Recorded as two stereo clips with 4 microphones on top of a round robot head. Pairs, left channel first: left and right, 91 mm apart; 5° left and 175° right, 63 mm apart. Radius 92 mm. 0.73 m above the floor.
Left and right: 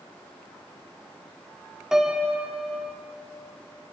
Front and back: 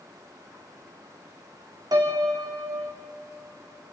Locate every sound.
1.9 s a piano: 175° right, 2 m